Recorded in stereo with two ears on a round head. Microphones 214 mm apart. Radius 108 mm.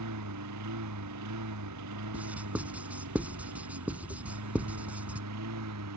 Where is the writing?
5° right (ahead or behind).